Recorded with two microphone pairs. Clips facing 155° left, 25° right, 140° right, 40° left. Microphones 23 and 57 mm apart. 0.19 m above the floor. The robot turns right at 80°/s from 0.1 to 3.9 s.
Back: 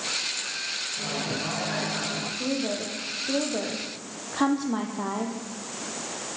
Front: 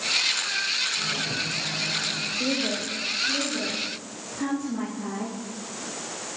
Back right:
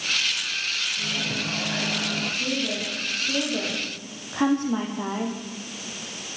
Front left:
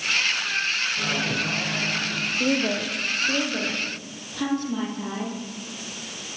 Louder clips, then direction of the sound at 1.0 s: Front 3 dB, front left 3 dB; 80° left.